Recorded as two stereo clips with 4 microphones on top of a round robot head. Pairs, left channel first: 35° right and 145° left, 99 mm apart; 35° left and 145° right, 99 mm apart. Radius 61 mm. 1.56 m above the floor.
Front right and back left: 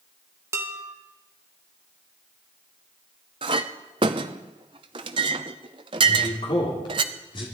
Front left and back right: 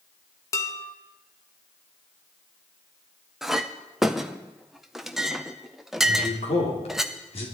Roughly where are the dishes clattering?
Left.